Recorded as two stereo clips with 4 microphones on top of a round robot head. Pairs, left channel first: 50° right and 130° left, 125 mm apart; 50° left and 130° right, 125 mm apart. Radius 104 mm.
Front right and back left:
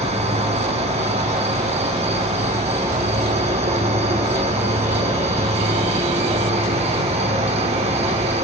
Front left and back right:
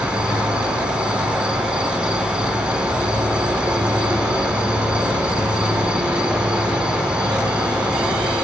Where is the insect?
145° left, 1.0 m.